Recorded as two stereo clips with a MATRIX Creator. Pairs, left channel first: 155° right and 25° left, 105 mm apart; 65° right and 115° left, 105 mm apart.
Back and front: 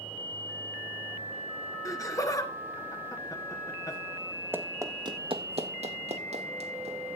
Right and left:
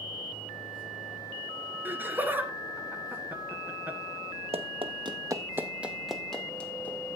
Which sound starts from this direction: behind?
Laughter, at 1.9 s.